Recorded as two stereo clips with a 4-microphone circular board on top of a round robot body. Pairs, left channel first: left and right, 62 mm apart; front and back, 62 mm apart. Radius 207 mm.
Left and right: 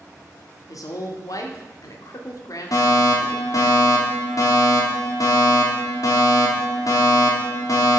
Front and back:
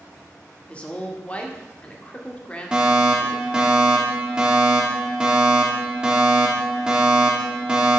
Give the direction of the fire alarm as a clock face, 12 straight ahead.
8 o'clock.